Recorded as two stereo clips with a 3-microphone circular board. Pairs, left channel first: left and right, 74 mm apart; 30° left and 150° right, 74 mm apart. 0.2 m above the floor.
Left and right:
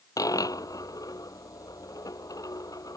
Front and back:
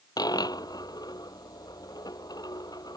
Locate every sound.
0.2 s a dropped coin: 55° left